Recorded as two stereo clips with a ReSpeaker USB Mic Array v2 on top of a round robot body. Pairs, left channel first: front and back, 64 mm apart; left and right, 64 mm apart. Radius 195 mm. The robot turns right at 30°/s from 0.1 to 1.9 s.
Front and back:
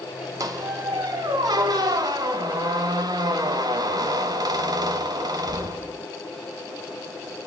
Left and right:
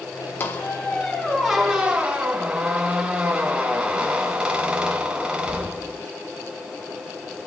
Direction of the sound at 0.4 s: 145° left.